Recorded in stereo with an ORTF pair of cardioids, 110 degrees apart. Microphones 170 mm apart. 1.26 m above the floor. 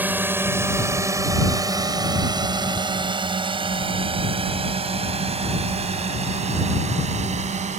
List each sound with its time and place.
0.0 s a drone: 10° right; by 7.8 s 45° right